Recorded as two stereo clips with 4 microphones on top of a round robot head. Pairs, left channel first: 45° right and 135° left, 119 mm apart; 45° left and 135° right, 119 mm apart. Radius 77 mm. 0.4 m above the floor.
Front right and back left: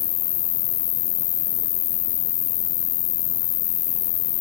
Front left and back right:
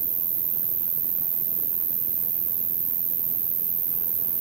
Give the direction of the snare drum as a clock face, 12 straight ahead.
No snare drum in this recording.